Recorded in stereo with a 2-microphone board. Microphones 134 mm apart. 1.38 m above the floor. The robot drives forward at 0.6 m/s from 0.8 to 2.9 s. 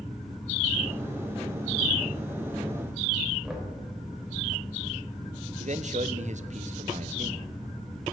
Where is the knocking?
5° right (ahead or behind), 3.5 m.